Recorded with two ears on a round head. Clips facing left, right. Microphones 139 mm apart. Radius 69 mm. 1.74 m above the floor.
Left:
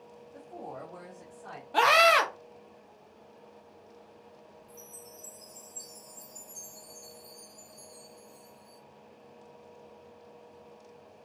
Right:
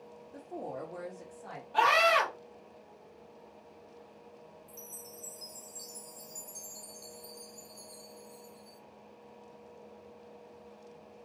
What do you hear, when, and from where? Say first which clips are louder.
0.3 s a woman speaking: right 2 dB; 45° right (ahead or behind), 0.7 m; by 1.6 s 5° right (ahead or behind), 1.7 m
1.7 s a scream: left 3 dB; 65° left (ahead or behind), 0.8 m
4.7 s a chime: even; 40° right (ahead or behind), 1.1 m